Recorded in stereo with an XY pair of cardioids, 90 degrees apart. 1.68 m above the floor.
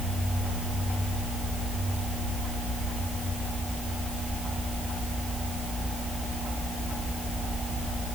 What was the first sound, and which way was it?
Only background noise.